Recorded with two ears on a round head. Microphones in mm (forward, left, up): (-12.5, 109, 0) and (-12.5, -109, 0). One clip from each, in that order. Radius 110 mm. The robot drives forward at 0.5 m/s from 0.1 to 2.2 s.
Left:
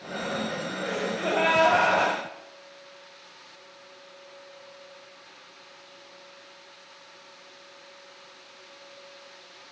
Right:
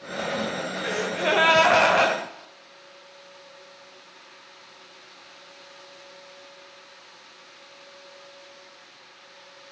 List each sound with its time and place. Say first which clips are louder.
0.8 s a gasp: right 4 dB; 65° right (ahead or behind), 2 m; by 2.2 s 55° right (ahead or behind), 2.5 m